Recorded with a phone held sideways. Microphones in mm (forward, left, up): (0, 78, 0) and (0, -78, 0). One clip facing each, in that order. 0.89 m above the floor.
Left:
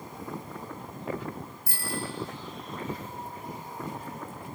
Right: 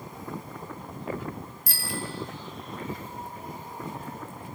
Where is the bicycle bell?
85° right, 2.5 m.